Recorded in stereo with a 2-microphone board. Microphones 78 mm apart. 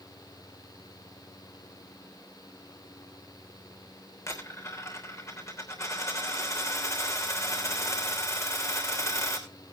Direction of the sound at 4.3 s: 40° left (ahead or behind).